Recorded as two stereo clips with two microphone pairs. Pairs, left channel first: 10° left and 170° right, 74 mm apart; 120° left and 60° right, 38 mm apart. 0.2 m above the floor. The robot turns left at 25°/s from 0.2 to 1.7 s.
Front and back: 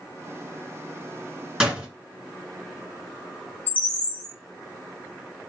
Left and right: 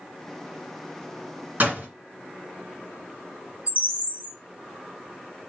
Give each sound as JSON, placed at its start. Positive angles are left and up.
{"t": 1.6, "sound": "a door slam", "azimuth_deg": -95, "distance_m": 1.9}
{"t": 3.7, "sound": "a bird", "azimuth_deg": -55, "distance_m": 1.2}